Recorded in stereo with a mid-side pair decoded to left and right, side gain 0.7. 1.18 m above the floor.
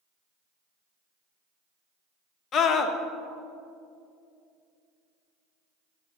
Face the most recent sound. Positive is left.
turn(degrees=40)